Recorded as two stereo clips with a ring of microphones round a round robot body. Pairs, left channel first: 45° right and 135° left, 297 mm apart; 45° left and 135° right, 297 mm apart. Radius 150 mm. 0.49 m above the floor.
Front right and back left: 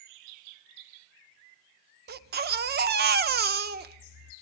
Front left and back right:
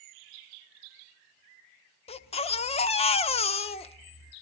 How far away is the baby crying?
About 0.9 m.